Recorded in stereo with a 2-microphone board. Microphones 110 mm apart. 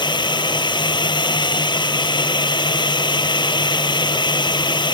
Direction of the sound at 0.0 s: 45° left (ahead or behind).